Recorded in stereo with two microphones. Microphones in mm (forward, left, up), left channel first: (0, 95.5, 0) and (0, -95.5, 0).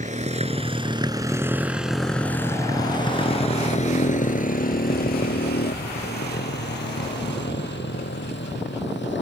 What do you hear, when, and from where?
0.0 s a motorcycle: 40° right (ahead or behind); by 9.2 s 70° left (ahead or behind)